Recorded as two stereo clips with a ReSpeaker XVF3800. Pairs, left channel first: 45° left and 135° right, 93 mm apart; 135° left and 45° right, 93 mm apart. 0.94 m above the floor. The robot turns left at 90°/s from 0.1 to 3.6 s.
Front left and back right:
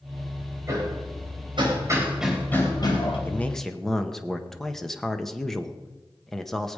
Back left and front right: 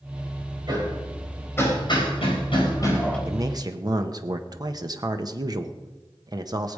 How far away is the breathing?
I don't hear breathing.